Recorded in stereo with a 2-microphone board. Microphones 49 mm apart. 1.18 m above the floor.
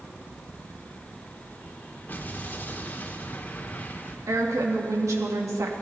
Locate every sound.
2.1 s an explosion: 35° left (ahead or behind), 1.4 m
4.3 s a woman speaking: 75° right (ahead or behind), 2 m